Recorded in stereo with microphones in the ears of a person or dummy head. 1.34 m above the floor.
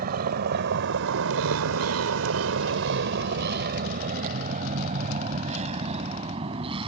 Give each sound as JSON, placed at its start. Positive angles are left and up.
{"t": 0.0, "sound": "a vehicle", "side_deg": -45}